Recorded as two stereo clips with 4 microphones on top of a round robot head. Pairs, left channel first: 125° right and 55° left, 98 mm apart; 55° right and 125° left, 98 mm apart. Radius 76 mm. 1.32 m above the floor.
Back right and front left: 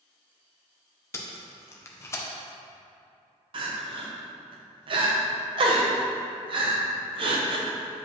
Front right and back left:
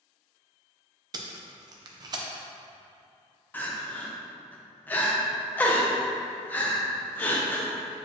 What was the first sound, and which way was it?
Tape being pulled, 170° left.